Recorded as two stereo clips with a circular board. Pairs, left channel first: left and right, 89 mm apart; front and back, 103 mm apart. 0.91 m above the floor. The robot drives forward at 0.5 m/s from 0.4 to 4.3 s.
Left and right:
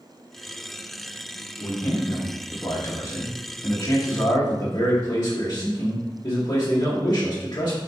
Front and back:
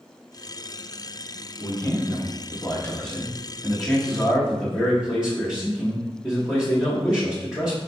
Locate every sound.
1.6 s a man speaking: 45° left, 1.8 m; by 7.8 s 100° left, 1.4 m